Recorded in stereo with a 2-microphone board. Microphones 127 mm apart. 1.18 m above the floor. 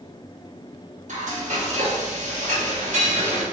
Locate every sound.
1.1 s frying: 65° right (ahead or behind), 1.0 m